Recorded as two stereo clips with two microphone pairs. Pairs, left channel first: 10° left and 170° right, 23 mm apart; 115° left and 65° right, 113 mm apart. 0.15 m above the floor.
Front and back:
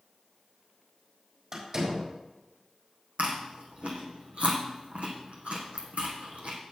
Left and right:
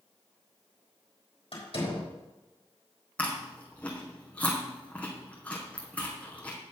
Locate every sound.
1.5 s a door slam: 135° left, 4.5 m
3.2 s chewing: 165° right, 2.5 m